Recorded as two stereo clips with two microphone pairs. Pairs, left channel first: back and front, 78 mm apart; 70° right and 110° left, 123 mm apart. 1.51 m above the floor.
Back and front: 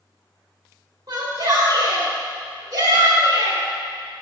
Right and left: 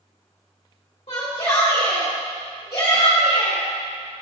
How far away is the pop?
I don't hear a pop.